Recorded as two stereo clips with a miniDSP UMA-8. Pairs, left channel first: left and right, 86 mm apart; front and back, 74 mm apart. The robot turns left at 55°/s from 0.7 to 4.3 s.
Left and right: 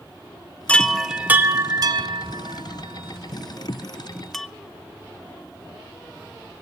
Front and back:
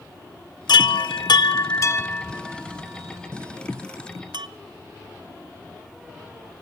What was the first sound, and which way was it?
A chime, 15° left.